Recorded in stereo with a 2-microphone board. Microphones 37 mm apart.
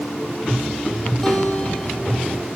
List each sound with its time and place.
1.2 s a guitar: 10° left (ahead or behind), 2.5 m